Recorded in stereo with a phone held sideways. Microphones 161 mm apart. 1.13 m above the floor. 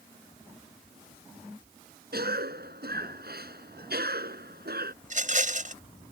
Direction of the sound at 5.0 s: 55° right (ahead or behind).